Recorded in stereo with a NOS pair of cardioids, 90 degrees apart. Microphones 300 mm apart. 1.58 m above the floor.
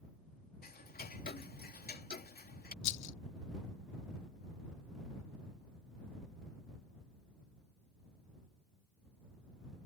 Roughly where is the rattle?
Ahead left.